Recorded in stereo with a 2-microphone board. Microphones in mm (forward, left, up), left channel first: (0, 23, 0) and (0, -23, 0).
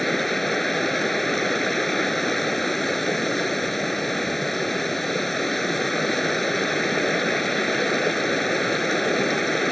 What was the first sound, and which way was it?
Running water, 5° left (ahead or behind).